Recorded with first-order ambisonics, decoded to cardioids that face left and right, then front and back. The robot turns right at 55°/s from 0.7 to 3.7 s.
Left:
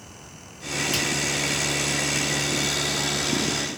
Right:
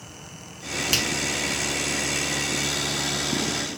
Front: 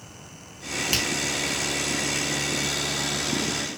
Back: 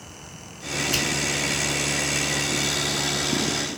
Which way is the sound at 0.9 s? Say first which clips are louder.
Right 3 dB, even; 60° right.